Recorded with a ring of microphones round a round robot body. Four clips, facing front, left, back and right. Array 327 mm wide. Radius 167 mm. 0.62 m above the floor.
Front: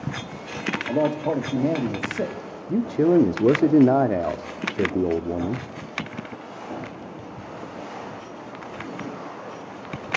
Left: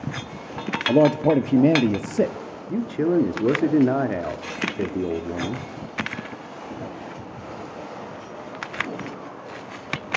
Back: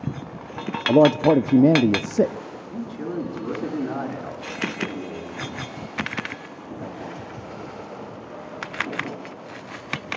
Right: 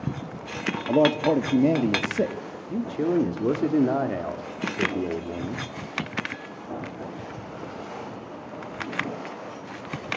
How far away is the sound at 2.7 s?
About 1.6 m.